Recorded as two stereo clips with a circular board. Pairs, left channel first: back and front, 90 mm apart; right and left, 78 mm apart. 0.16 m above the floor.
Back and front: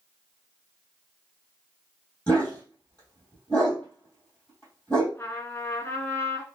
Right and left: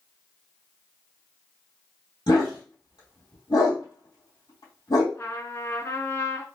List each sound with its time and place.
2.3 s a dog barking: 105° right, 2 m
5.2 s a trumpet: 130° right, 0.6 m